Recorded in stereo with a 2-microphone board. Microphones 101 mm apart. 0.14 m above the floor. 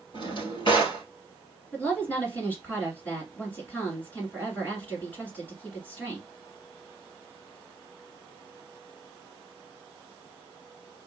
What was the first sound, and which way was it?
A drawer, 50° left (ahead or behind).